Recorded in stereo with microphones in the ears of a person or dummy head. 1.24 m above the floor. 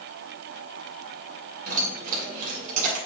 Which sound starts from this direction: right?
Keys jangling, at 1.7 s.